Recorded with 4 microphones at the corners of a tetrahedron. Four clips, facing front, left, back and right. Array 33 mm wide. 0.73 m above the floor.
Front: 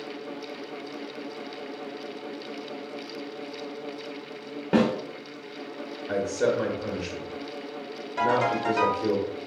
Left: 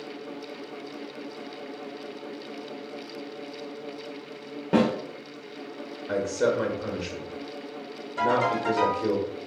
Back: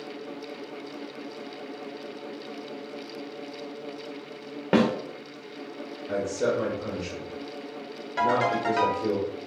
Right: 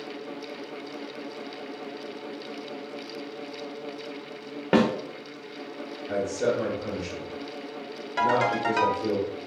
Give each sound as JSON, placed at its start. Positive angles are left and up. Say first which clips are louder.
{"t": 4.7, "sound": "a snare drum", "louder": "right 1 dB, even", "azimuth_deg": -130, "distance_m": 0.7}
{"t": 6.1, "sound": "a man speaking", "louder": "left 1 dB, front 1 dB", "azimuth_deg": 60, "distance_m": 0.8}
{"t": 8.2, "sound": "a ringtone", "louder": "right 1 dB, even", "azimuth_deg": -120, "distance_m": 1.0}